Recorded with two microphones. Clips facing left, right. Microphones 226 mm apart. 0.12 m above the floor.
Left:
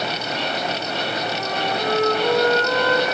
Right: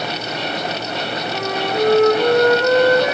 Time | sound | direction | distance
1.3 | a flute | 65° right (ahead or behind) | 2.5 m